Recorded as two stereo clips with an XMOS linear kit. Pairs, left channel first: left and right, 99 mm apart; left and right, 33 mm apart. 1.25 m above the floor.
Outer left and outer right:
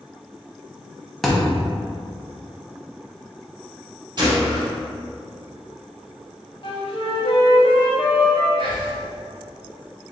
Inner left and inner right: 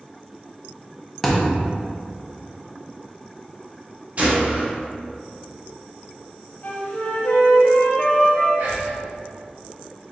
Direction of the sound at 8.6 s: 60° right (ahead or behind).